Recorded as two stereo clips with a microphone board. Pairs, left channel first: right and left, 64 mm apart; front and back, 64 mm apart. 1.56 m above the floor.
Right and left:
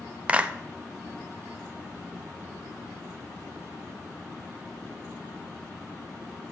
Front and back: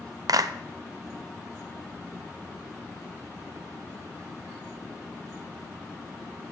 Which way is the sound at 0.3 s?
160° left.